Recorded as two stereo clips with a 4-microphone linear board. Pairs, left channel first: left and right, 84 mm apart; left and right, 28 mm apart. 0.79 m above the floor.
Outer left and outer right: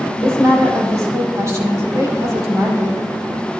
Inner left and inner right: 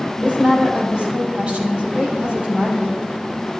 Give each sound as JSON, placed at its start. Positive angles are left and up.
{"t": 0.2, "sound": "a woman speaking", "side_deg": -45, "distance_m": 4.5}